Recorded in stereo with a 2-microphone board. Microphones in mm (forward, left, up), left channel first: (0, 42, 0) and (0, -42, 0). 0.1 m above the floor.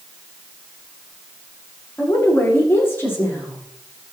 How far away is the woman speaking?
About 7.5 m.